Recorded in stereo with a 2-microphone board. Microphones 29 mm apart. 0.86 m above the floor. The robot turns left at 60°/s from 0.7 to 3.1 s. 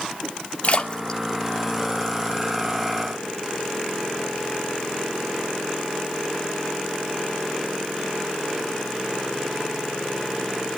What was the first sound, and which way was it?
A splash, 45° left (ahead or behind).